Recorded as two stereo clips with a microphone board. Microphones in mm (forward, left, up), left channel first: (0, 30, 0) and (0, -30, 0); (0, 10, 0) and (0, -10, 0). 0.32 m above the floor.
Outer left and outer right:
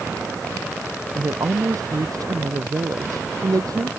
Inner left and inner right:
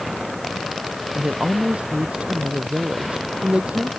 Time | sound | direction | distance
1.1 | a woman speaking | 75° right (ahead or behind) | ?